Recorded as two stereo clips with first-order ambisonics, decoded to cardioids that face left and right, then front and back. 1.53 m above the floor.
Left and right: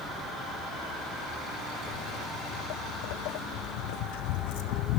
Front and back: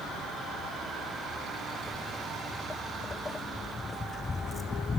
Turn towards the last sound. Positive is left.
turn(degrees=75)